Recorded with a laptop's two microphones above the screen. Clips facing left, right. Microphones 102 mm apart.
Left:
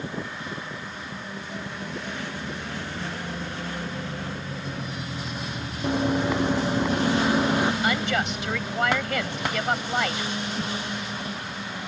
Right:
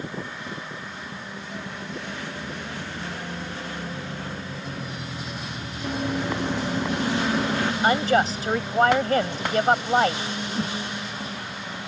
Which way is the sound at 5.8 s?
20° left (ahead or behind).